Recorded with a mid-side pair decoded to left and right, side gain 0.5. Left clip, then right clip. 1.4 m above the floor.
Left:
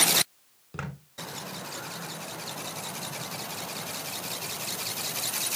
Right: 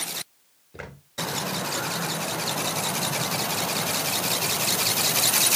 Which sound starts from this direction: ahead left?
Footsteps, at 0.7 s.